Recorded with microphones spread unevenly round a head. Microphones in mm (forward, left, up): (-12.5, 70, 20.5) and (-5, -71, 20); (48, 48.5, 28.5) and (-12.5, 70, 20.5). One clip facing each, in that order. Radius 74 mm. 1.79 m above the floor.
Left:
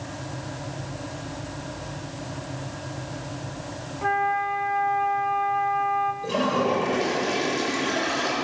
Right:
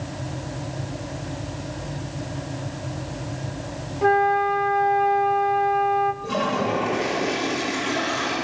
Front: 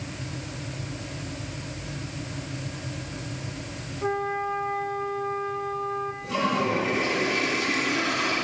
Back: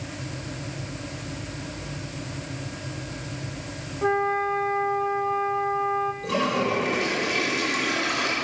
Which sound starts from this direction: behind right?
A flute, at 4.0 s.